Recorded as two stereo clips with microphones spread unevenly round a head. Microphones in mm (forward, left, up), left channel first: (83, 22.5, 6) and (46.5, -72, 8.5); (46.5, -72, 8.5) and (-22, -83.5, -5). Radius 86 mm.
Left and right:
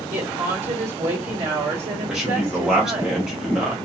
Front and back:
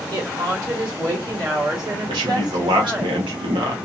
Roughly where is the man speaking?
Behind.